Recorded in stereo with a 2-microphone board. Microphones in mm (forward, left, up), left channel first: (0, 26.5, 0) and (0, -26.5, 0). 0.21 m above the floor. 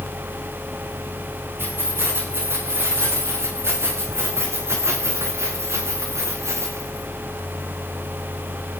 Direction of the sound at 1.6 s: 50° right (ahead or behind).